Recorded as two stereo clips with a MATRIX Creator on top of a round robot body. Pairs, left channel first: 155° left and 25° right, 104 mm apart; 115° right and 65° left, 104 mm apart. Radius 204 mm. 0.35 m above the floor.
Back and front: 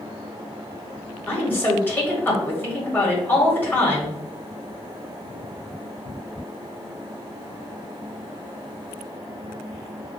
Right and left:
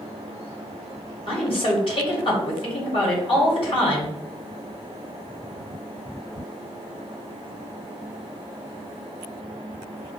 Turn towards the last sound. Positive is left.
turn(degrees=-135)